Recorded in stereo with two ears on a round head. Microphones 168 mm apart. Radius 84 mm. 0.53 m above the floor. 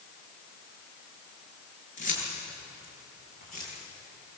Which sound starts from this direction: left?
Keys jangling, at 2.0 s.